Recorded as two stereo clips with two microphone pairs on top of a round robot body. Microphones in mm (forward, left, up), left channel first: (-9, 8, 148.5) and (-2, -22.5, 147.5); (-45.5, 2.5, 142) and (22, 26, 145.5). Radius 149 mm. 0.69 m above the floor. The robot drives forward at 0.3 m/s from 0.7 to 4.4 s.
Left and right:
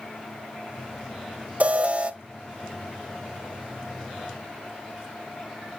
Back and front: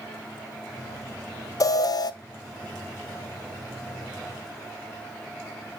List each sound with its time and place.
1.6 s an alarm: 120° right, 0.7 m; by 2.1 s 130° right, 0.8 m